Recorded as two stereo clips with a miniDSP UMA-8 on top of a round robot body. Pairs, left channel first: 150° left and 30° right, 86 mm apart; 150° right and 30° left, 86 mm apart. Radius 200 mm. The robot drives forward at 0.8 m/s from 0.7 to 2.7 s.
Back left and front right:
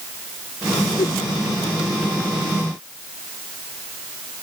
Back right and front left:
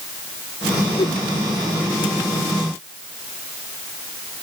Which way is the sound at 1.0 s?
175° right.